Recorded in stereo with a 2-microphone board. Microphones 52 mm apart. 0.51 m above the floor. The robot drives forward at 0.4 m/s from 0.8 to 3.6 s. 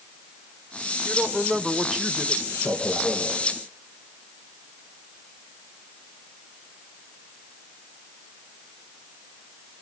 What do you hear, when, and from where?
1.1 s a woman speaking: 5° left (ahead or behind), 1.4 m
2.5 s a man speaking: 65° left (ahead or behind), 5 m